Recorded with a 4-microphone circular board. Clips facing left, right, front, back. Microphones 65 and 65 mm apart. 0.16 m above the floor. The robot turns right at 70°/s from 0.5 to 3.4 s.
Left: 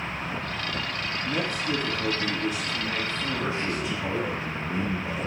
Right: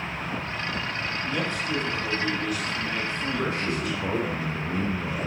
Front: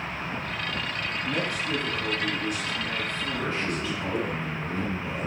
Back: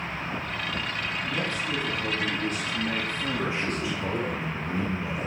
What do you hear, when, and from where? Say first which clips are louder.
1.2 s a man speaking: left 2 dB, front 3 dB; 55° left, 2.5 m; by 4.4 s 155° right, 2.5 m
3.4 s a man speaking: right 2 dB, front 1 dB; 115° right, 3 m; by 5.3 s 110° right, 3 m